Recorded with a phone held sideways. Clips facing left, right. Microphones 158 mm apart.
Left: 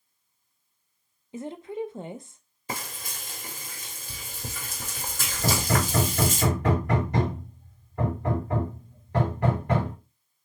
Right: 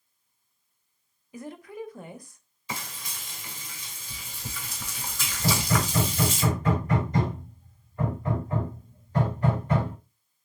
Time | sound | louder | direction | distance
1.3 | a woman speaking | left 5 dB | 25° left (ahead or behind) | 0.5 m
2.7 | frying | left 2 dB | 50° left (ahead or behind) | 1.2 m
5.4 | hammering | left 1 dB | 75° left (ahead or behind) | 2 m